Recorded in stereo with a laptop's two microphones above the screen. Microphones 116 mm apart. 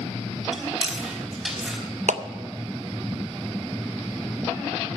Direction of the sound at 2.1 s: 80° right.